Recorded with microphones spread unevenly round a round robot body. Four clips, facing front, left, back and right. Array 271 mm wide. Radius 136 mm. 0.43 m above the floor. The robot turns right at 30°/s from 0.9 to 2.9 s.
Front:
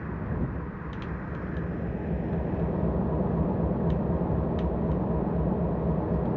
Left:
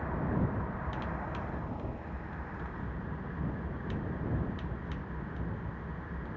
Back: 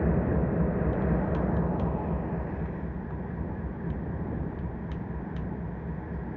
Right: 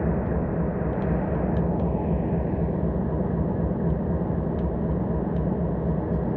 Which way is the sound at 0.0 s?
125° right.